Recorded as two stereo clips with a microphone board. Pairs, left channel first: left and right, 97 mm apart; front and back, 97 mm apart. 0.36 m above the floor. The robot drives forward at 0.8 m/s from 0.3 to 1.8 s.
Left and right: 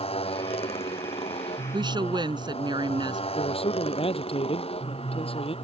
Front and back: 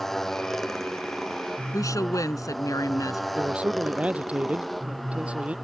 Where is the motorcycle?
85° left; by 5.7 s 90° left.